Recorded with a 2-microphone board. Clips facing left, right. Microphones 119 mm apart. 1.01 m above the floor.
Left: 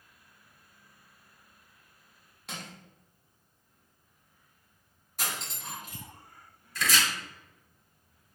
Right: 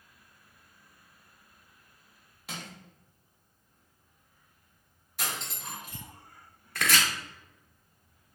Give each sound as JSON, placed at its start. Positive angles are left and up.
{"t": 2.5, "sound": "crushing", "side_deg": 0, "distance_m": 0.7}
{"t": 5.2, "sound": "cutlery clinking", "side_deg": 45, "distance_m": 2.0}
{"t": 6.8, "sound": "chopping", "side_deg": -60, "distance_m": 0.5}